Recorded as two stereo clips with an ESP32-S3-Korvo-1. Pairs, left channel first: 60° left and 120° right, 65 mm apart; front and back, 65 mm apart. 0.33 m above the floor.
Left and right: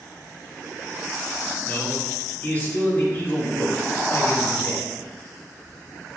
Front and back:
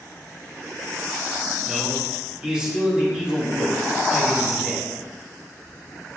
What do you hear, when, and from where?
1.7 s a man speaking: 110° left, 1.9 m